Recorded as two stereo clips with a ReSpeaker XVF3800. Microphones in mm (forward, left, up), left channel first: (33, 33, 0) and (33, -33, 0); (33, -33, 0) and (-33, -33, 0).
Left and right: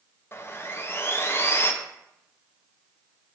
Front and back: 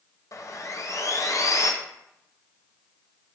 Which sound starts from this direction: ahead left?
Sawing, at 0.3 s.